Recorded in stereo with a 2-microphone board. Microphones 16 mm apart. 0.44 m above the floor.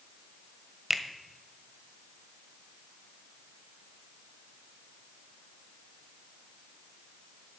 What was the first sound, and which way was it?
A finger snap, 15° right (ahead or behind).